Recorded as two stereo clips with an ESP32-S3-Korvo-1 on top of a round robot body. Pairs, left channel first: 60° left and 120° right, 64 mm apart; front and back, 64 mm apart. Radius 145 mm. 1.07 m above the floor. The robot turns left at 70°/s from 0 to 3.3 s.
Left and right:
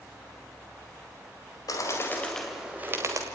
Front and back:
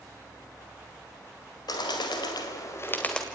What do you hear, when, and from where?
1.7 s a bird: 25° left, 2.0 m; by 3.2 s 85° right, 2.0 m